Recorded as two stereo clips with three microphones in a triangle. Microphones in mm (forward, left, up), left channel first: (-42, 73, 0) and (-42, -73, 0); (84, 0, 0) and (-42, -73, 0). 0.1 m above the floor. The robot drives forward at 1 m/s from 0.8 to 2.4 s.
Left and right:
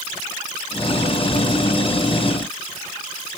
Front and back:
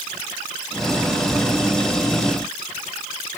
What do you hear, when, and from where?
Only background noise.